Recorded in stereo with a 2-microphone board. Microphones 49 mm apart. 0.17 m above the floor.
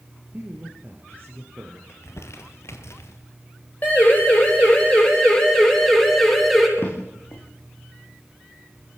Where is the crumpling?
65° left (ahead or behind), 2.5 m.